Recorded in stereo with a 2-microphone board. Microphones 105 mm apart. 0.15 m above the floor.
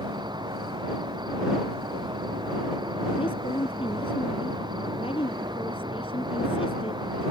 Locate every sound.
0.0 s an insect: 45° right (ahead or behind)
3.2 s a woman speaking: 65° left (ahead or behind)